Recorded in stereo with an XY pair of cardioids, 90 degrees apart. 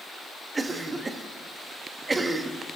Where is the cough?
30° right, 2.5 m.